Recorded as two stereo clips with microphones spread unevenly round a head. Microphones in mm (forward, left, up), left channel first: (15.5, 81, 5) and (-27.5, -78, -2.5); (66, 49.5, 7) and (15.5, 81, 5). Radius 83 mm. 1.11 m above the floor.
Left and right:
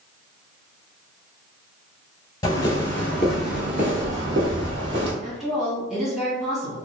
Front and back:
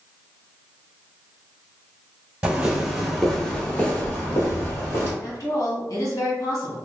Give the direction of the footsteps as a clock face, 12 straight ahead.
8 o'clock.